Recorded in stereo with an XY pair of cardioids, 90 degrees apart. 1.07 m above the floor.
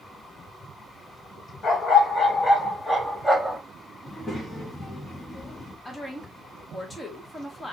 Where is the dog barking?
55° left, 1.7 m; by 3.6 s 5° left, 1.0 m.